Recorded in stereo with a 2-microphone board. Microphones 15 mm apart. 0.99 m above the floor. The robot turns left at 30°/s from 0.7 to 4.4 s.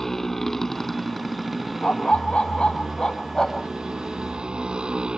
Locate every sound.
0.0 s a motorcycle: 20° left; by 5.2 s 90° right
1.8 s a dog barking: 85° left; by 3.7 s 30° left